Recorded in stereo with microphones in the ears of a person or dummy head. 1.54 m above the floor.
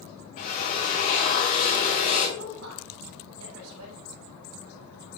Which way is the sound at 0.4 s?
45° left (ahead or behind).